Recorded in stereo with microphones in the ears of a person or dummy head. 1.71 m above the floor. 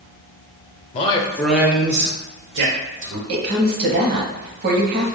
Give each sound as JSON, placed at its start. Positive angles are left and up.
{"t": 0.9, "sound": "a man speaking", "side_deg": 35, "distance_m": 0.7}
{"t": 3.3, "sound": "a woman speaking", "side_deg": -55, "distance_m": 1.0}